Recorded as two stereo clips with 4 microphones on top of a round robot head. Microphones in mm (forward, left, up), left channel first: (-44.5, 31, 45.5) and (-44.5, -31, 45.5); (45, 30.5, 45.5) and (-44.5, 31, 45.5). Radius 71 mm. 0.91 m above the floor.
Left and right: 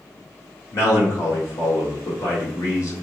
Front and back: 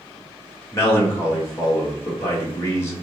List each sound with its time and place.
0.7 s a man speaking: 55° left, 1.8 m